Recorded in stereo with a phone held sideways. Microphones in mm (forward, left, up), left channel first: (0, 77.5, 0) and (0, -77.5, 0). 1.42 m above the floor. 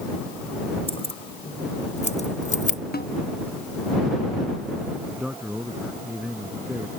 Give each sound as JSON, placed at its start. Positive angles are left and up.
{"t": 0.9, "sound": "keys jangling", "side_deg": 35}
{"t": 2.9, "sound": "a snare drum", "side_deg": 65}
{"t": 5.2, "sound": "a man speaking", "side_deg": -5}